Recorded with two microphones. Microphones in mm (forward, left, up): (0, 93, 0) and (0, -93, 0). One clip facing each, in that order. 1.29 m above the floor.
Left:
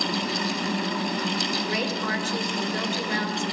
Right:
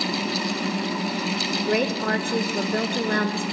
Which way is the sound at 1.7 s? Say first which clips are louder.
Right 5 dB; 55° right (ahead or behind).